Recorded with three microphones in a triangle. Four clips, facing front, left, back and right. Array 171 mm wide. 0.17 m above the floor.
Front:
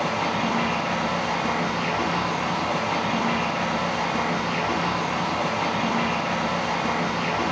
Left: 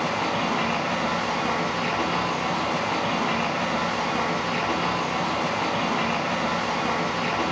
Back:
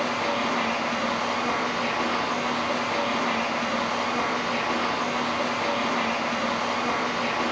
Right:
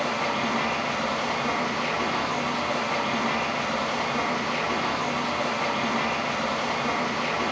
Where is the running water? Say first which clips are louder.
Left 1 dB, front 1 dB; 50° left, 1.1 m.